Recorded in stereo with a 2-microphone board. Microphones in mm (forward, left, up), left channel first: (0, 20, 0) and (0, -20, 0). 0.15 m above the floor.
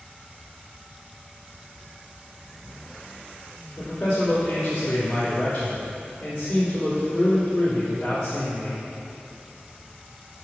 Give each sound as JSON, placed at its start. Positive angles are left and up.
{"t": 3.8, "sound": "a man speaking", "side_deg": 30, "distance_m": 1.6}